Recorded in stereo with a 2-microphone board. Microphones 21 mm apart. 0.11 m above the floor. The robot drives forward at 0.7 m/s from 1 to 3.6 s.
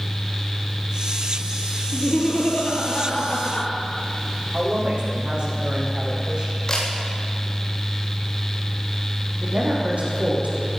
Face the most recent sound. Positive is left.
turn(degrees=-75)  # may be behind; listen again after turning